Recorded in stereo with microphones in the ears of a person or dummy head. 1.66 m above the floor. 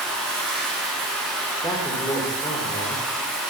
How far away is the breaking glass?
I don't hear breaking glass.